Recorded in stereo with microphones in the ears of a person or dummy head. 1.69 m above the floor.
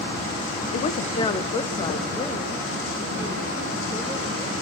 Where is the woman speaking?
45° left (ahead or behind), 0.9 m; by 4.5 s 15° left (ahead or behind), 5.5 m.